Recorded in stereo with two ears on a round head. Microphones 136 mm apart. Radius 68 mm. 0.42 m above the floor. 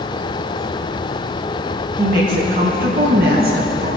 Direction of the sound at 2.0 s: 60° right (ahead or behind).